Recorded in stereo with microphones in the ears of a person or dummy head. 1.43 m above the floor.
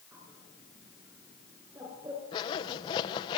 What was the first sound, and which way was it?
A bird, 20° right (ahead or behind).